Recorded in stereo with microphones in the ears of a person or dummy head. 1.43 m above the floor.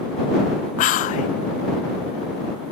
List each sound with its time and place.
0.8 s whispering: 45° left (ahead or behind)